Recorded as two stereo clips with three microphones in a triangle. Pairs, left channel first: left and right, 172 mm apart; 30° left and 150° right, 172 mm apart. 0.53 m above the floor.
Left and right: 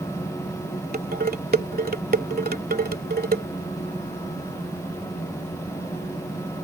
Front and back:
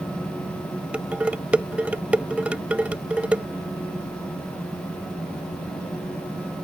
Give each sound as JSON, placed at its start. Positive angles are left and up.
{"t": 0.9, "sound": "dishes clattering", "azimuth_deg": -70}